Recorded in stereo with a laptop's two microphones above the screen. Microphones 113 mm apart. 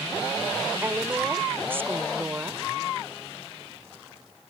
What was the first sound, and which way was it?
A woman speaking, 20° right (ahead or behind).